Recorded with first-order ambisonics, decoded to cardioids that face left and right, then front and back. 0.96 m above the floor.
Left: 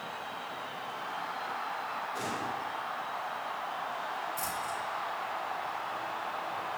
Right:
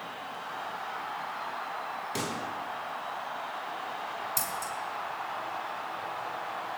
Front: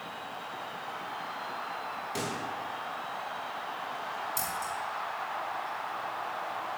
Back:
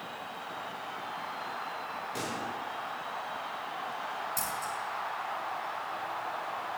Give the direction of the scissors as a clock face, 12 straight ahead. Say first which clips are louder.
Right 1 dB, front 1 dB; 3 o'clock.